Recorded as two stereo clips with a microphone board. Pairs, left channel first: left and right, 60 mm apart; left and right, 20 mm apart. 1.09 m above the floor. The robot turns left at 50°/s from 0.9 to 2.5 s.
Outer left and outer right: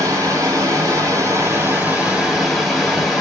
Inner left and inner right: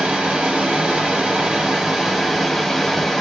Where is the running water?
100° right, 1.3 m; by 3.2 s straight behind, 1.3 m.